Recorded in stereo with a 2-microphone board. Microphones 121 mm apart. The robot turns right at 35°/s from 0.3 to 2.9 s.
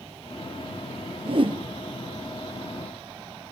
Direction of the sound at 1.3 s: 55° right (ahead or behind).